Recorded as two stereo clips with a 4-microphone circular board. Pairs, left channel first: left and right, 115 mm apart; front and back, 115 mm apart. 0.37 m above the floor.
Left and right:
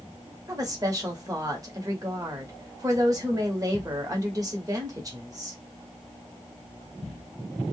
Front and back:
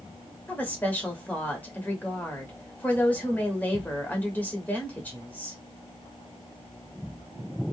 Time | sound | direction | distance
0.5 | a woman speaking | 65° right | 1.0 m